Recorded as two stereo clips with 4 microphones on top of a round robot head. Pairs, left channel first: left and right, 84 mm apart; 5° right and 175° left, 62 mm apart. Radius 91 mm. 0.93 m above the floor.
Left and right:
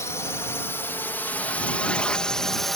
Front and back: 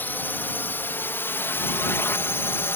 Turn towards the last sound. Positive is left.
turn(degrees=0)